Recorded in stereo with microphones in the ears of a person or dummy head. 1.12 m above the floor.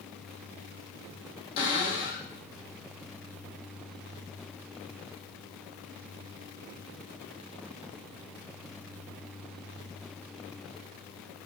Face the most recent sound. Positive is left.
turn(degrees=30)  # may be behind; listen again after turning